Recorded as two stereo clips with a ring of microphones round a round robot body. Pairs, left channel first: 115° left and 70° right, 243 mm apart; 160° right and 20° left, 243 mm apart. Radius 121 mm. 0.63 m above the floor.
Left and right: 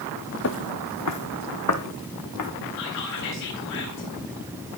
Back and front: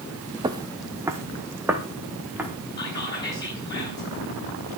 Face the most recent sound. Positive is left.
turn(degrees=130)